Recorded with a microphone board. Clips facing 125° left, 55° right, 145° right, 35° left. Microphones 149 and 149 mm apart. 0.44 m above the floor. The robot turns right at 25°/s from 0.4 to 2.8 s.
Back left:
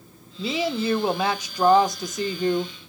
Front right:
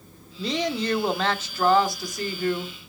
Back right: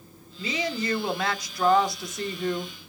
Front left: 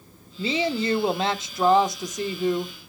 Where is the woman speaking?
40° left, 0.9 m; by 2.7 s 100° left, 0.9 m.